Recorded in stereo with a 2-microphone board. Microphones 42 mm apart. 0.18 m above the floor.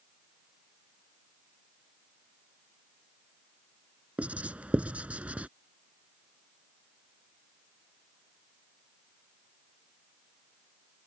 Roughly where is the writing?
Right.